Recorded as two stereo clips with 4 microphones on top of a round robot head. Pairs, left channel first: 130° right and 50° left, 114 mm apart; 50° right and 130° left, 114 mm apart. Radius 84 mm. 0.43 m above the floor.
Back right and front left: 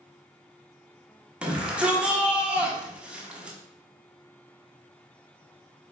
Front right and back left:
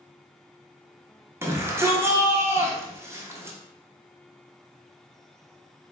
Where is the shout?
115° left, 0.9 m.